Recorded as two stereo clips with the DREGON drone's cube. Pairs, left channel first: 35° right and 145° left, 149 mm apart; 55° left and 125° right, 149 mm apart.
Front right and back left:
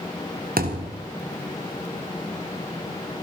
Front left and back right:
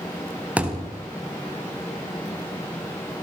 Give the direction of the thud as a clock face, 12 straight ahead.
7 o'clock.